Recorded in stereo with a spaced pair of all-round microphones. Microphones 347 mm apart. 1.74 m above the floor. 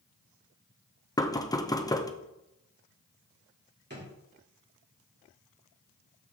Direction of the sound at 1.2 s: 10° left (ahead or behind).